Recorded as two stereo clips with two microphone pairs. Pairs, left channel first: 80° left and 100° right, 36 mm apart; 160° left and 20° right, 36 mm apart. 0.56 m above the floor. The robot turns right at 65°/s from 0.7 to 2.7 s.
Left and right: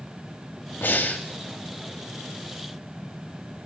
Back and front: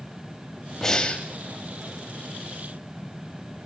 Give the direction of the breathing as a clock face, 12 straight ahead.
9 o'clock.